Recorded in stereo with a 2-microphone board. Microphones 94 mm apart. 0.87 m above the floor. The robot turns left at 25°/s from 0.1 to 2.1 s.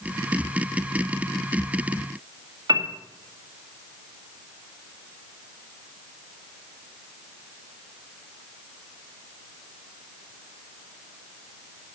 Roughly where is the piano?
Right.